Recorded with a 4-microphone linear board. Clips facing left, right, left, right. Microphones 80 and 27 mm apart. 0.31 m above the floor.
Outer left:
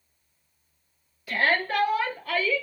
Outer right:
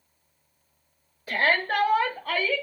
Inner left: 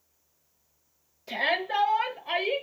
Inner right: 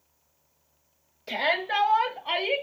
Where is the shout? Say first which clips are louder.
Outer right 1 dB, inner right 1 dB; 35° right (ahead or behind), 1.3 m; by 2.6 s 45° right (ahead or behind), 1.5 m.